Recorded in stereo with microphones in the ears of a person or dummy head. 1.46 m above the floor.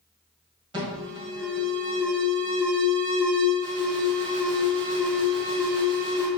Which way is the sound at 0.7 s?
25° right (ahead or behind).